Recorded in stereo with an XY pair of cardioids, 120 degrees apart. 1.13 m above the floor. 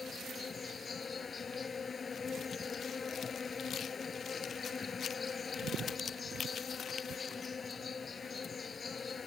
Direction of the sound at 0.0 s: 35° left.